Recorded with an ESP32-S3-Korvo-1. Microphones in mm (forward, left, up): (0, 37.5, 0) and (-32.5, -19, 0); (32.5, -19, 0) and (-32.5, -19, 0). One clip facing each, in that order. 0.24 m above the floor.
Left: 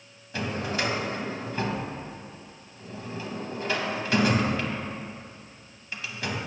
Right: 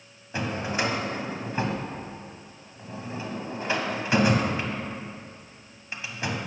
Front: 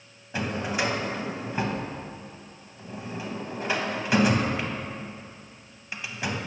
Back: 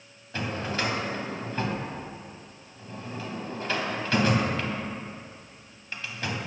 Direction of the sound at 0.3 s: 65° right.